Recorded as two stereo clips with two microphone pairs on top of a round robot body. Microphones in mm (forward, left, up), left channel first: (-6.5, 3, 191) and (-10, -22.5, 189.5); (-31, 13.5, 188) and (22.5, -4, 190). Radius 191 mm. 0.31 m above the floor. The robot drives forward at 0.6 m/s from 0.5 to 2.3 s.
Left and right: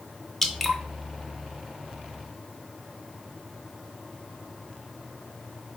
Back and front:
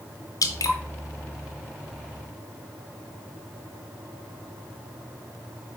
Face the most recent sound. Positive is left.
turn(degrees=175)